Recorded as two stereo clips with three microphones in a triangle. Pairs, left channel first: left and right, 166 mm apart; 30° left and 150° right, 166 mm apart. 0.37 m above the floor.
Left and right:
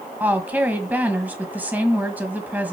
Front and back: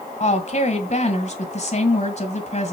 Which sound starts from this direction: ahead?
A woman speaking, at 0.2 s.